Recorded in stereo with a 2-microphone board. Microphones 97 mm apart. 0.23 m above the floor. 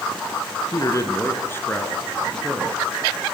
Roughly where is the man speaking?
Left.